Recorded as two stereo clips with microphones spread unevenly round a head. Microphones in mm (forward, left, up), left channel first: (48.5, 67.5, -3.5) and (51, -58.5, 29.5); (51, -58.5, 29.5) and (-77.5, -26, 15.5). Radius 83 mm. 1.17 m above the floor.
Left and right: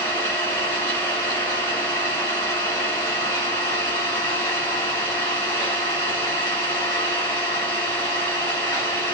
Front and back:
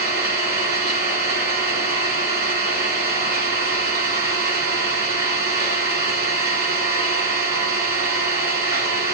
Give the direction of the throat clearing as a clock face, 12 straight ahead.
I don't hear throat clearing.